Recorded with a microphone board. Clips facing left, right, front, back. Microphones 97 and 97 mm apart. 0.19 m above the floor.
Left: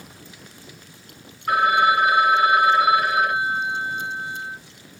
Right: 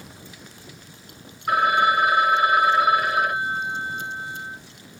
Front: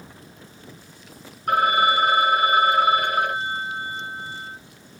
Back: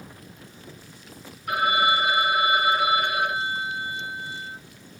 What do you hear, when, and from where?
1.5 s a phone ringing: 15° right, 1.4 m